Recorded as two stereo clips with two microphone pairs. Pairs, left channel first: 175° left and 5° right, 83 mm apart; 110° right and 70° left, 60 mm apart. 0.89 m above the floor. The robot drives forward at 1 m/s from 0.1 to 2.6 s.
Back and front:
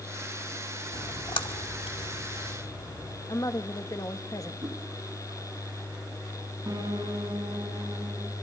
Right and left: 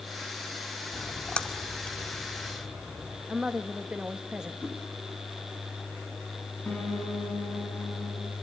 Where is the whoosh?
30° right, 8.5 m.